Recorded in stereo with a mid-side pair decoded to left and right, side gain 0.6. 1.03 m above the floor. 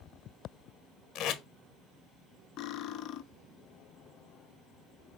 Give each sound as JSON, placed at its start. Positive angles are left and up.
{"t": 1.1, "sound": "tape being pulled", "azimuth_deg": 55, "distance_m": 1.0}
{"t": 2.6, "sound": "cutlery clinking", "azimuth_deg": 60, "distance_m": 0.6}